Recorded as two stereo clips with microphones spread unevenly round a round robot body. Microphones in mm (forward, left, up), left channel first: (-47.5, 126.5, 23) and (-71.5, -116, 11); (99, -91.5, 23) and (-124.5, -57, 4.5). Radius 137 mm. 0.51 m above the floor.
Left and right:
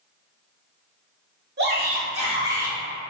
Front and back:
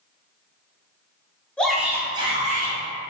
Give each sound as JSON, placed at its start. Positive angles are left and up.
{"t": 1.6, "sound": "a shout", "azimuth_deg": -95, "distance_m": 1.0}